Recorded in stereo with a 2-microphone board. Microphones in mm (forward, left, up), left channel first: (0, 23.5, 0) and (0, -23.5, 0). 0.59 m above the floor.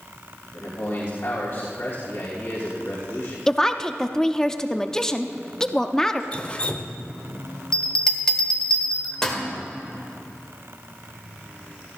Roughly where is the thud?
No thud in this recording.